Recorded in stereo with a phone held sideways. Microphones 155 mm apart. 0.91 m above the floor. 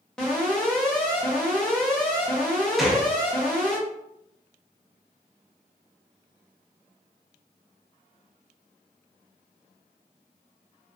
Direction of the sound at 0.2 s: 5° left (ahead or behind).